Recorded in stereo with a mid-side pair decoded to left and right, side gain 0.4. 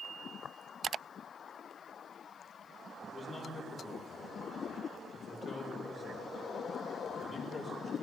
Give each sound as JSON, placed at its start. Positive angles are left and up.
{"t": 3.0, "sound": "a man speaking", "azimuth_deg": 45, "distance_m": 5.0}